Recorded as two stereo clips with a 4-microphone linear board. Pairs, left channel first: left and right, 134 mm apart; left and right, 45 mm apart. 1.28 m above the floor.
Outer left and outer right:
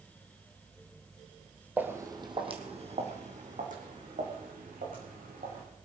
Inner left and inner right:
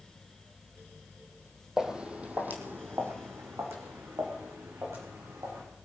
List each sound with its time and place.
1.8 s footsteps: 10° right (ahead or behind), 2.0 m; by 5.6 s 80° right, 6 m